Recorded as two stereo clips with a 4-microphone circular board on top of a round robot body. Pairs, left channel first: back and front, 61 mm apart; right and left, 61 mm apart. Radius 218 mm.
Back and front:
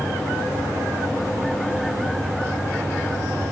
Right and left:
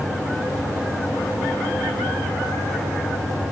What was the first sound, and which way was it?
Only background noise.